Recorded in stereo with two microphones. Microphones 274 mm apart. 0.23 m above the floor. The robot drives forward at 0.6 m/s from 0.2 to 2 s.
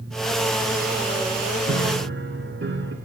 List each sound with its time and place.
1.7 s a piano: 55° right (ahead or behind), 1.0 m; by 2.9 s 45° right (ahead or behind), 1.1 m